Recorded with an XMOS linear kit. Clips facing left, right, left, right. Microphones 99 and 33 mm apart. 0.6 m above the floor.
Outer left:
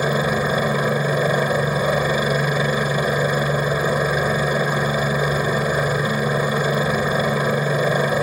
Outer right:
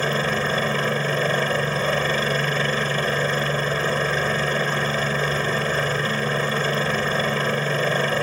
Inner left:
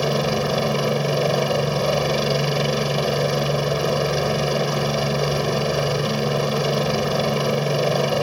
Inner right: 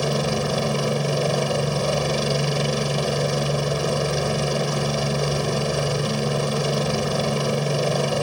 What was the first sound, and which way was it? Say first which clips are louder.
A helicopter: outer left 3 dB, inner left 2 dB; 10° left (ahead or behind).